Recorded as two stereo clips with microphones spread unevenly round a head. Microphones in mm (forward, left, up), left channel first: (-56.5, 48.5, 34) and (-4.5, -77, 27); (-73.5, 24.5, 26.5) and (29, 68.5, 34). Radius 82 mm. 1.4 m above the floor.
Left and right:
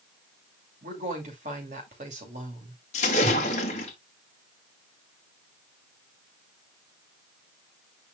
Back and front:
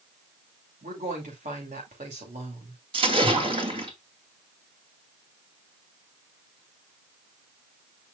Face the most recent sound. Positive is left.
turn(degrees=65)